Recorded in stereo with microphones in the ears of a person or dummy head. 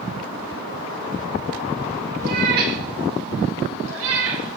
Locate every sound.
2.2 s a cat meowing: 45° right (ahead or behind), 2 m; by 4.6 s 70° right (ahead or behind), 2.5 m